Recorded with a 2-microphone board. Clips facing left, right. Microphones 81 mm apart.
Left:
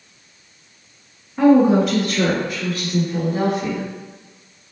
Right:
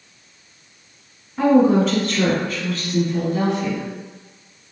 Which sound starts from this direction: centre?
A woman speaking, at 1.4 s.